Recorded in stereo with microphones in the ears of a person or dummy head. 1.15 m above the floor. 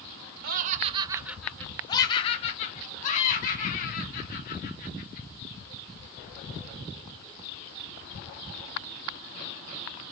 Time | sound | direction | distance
0.4 | laughter | 50° right (ahead or behind) | 0.6 m